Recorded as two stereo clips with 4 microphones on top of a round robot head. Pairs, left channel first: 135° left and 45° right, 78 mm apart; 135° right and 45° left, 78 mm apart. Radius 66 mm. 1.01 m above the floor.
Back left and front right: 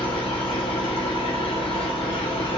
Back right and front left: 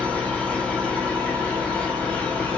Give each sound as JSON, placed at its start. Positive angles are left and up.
{"t": 0.0, "sound": "an engine running", "azimuth_deg": 150, "distance_m": 1.0}